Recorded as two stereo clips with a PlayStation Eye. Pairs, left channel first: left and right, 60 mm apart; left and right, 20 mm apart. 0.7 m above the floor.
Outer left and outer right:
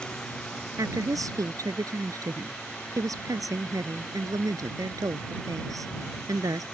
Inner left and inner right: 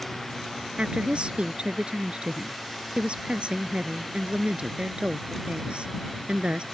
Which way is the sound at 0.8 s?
75° right (ahead or behind).